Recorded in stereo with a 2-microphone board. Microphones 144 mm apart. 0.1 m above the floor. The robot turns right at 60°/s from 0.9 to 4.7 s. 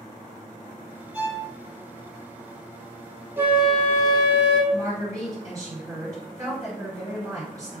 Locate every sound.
1.1 s a violin: 10° right (ahead or behind), 1.5 m; by 1.5 s 5° right (ahead or behind), 1.5 m
3.4 s a flute: 15° right, 0.7 m; by 4.6 s 60° left, 0.7 m
4.7 s a woman speaking: 25° right (ahead or behind), 1.8 m